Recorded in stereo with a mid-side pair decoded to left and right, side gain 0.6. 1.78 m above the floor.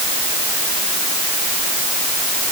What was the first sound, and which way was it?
Only background noise.